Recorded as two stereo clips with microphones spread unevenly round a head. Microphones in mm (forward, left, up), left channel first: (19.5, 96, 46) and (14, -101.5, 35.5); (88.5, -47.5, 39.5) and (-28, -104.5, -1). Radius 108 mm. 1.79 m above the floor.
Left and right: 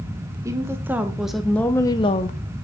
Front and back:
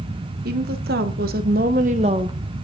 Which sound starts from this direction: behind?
A woman speaking, at 0.5 s.